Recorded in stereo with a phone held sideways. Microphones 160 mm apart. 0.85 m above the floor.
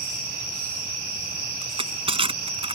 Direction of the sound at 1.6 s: 30° right (ahead or behind).